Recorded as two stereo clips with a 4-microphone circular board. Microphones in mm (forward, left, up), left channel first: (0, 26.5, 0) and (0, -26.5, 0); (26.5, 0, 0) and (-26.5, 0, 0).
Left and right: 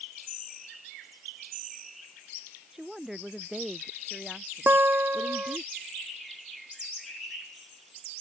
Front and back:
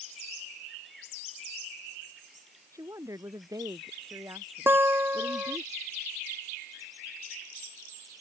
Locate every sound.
2.7 s a woman speaking: 175° right
4.7 s a guitar: 135° right